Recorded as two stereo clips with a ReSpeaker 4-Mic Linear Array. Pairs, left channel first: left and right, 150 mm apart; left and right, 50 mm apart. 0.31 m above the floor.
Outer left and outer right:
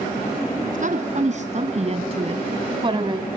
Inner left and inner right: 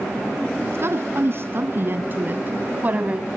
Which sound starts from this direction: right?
A woman speaking, at 0.7 s.